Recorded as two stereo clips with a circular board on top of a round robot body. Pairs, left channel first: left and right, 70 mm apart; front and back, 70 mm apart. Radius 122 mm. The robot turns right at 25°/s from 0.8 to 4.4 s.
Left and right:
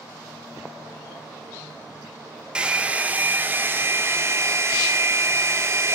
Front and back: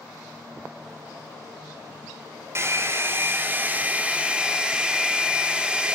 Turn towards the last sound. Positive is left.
turn(degrees=-110)